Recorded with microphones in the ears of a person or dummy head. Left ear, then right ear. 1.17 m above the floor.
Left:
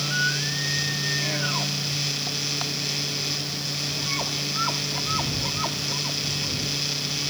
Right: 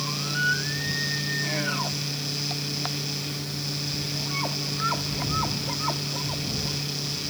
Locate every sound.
Only background noise.